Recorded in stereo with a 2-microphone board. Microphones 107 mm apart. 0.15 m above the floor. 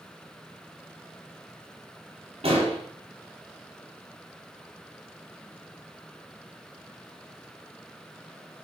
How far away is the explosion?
About 4.5 m.